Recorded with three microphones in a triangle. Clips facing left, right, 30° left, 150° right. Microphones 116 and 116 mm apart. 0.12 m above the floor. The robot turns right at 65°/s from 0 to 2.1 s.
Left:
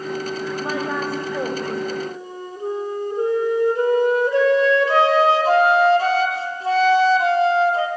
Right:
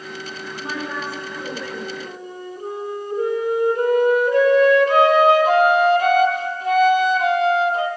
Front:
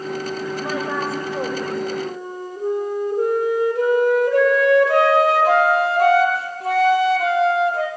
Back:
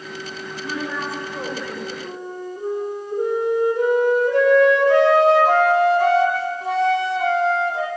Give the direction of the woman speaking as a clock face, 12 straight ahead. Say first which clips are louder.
Left 2 dB, front 1 dB; 11 o'clock.